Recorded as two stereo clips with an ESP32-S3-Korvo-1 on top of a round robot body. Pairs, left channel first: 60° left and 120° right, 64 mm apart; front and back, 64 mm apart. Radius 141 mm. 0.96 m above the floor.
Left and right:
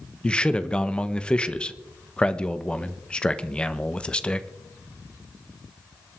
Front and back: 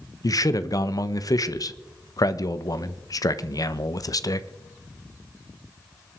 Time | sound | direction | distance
0.2 | a man speaking | 15° right | 1.2 m